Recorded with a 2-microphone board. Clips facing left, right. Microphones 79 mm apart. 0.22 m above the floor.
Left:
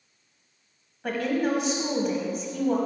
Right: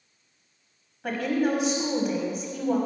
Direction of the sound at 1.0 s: Centre (ahead or behind).